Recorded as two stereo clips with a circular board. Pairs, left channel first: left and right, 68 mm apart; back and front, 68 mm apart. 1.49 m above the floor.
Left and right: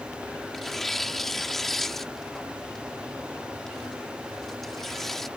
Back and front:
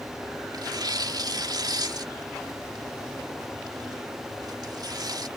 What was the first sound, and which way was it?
Tearing paper, 5° left.